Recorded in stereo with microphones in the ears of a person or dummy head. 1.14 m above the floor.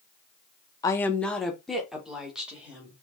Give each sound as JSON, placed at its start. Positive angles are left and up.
{"t": 0.8, "sound": "a woman speaking", "side_deg": 15, "distance_m": 0.6}